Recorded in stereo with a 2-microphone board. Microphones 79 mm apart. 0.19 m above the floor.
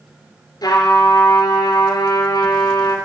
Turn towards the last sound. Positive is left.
turn(degrees=55)  # may be behind; listen again after turning